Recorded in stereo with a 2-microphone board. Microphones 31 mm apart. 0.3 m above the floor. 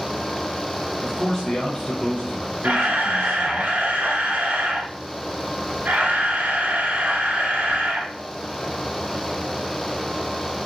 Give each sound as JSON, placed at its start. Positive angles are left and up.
{"t": 1.0, "sound": "a man speaking", "side_deg": 20, "distance_m": 0.9}
{"t": 2.6, "sound": "a camera shutter", "side_deg": -60, "distance_m": 0.7}